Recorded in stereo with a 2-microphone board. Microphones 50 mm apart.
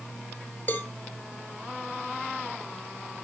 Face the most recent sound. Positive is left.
turn(degrees=40)  # may be behind; listen again after turning